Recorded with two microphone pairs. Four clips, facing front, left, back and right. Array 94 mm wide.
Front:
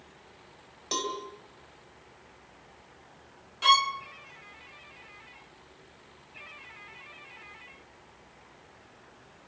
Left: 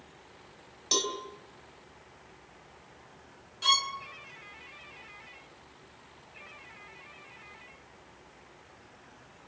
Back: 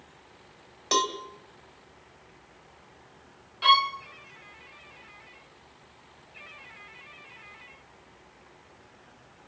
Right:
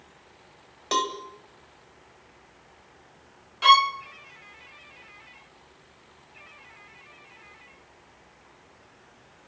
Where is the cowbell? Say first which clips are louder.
Right 7 dB, back 6 dB; 125° right, 2.5 m.